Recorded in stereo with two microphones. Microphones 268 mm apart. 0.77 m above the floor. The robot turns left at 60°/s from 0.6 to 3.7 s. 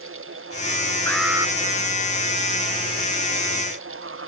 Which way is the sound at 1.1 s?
10° left (ahead or behind).